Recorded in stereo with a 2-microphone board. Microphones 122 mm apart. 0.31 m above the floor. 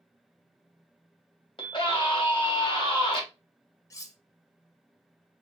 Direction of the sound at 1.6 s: 45° left (ahead or behind).